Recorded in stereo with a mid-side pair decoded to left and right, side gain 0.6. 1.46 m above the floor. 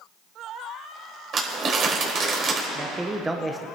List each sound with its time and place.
1.3 s crumpling: 45° right, 4 m
2.8 s a man speaking: 15° right, 0.8 m